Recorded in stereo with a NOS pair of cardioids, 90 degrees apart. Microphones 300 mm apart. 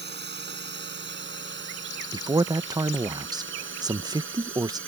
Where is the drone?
35° right; by 4.9 s 45° right.